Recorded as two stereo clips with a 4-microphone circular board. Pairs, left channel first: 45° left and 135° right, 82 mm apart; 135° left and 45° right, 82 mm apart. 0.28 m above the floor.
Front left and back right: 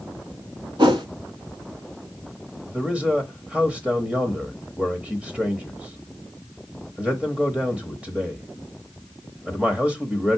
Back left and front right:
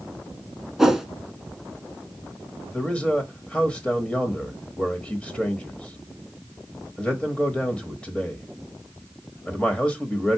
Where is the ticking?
No ticking in this recording.